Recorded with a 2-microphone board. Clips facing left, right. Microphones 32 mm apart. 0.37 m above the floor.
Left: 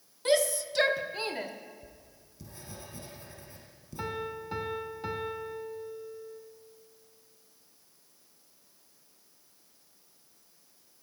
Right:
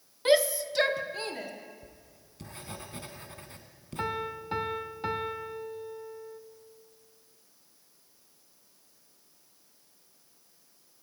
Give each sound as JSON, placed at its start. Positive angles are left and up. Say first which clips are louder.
{"t": 0.2, "sound": "a shout", "louder": "right 3 dB", "side_deg": -25, "distance_m": 1.2}
{"t": 1.8, "sound": "writing", "louder": "even", "side_deg": -55, "distance_m": 2.5}
{"t": 4.0, "sound": "a piano", "louder": "right 3 dB", "side_deg": -25, "distance_m": 1.2}